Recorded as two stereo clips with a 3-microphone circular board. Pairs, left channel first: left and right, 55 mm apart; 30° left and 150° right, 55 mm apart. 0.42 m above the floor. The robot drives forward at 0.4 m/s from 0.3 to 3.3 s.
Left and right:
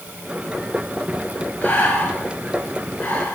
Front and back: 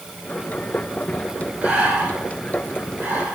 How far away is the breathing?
About 5 m.